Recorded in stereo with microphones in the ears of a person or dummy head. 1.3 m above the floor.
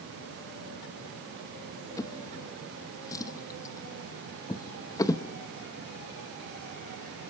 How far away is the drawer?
About 0.9 m.